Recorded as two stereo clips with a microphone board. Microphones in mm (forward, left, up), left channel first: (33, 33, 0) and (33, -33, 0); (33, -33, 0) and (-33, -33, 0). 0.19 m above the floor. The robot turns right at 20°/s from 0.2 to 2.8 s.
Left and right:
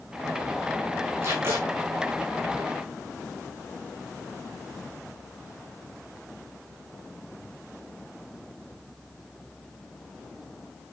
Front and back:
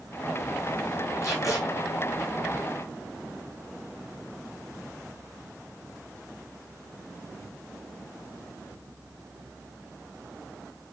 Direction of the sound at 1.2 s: 45° right.